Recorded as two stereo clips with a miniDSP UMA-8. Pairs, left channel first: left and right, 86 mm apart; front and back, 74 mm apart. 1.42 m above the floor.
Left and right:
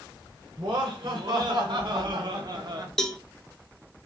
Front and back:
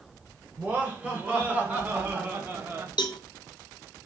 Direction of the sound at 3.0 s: 5° left.